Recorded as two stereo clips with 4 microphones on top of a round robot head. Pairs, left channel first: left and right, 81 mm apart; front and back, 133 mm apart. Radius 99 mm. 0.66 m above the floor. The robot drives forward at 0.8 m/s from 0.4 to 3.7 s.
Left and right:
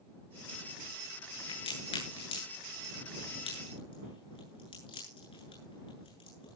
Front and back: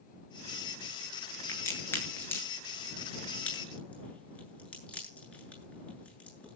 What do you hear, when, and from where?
1.5 s a crack: 70° left, 9 m; by 6.6 s 80° left, 8.5 m